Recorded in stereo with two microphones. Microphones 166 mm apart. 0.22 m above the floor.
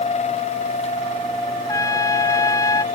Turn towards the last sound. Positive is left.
turn(degrees=20)  # may be behind; listen again after turning